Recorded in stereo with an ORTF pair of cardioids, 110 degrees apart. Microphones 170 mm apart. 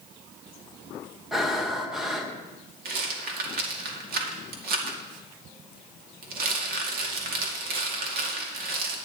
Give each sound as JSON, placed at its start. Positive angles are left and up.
{"t": 1.3, "sound": "breathing", "azimuth_deg": 0, "distance_m": 1.5}
{"t": 2.9, "sound": "a rattle", "azimuth_deg": -65, "distance_m": 2.5}